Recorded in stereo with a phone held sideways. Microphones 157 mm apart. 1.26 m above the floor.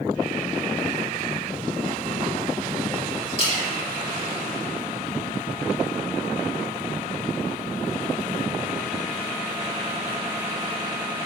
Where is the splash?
40° left (ahead or behind), 3 m.